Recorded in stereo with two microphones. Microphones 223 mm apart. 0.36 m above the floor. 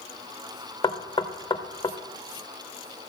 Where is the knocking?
20° left (ahead or behind), 0.6 m.